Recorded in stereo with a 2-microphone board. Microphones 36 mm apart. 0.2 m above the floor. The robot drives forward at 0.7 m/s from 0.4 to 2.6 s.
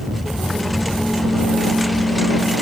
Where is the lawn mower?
Centre (ahead or behind).